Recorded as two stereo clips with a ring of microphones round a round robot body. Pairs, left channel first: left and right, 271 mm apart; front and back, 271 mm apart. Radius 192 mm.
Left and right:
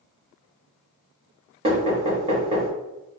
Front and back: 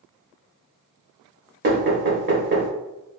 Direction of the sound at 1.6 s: 150° right.